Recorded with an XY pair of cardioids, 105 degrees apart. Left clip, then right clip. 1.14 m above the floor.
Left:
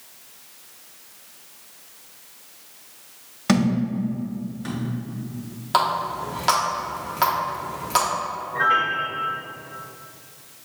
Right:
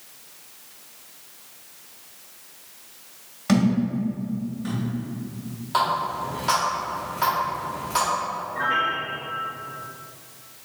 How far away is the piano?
About 1.6 m.